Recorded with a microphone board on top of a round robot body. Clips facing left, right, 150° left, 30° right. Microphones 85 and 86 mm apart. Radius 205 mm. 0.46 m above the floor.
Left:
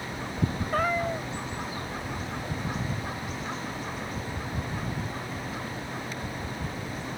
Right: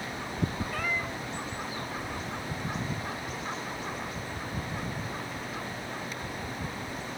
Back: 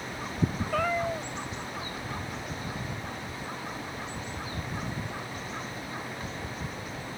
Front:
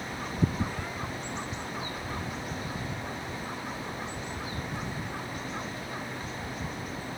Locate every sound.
0.7 s a cat meowing: 140° left